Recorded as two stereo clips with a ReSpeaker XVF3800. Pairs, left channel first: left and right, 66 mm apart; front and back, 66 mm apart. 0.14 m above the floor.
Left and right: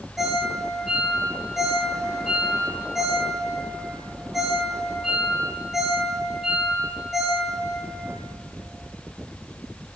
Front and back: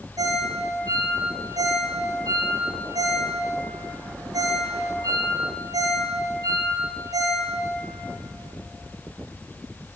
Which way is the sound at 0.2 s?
175° right.